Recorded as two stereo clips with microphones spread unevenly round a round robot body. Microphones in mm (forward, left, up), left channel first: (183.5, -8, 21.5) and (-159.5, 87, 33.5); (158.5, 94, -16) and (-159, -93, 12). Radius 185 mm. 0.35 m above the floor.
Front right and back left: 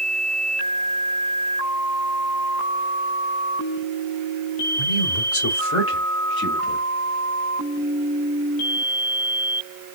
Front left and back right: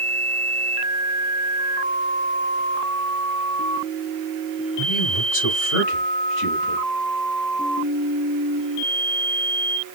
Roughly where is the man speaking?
Ahead right.